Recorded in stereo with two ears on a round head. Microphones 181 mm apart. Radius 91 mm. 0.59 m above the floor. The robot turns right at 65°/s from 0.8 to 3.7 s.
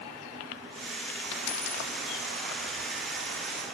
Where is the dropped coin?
65° left (ahead or behind), 1.3 m; by 3.6 s 75° right (ahead or behind), 1.3 m.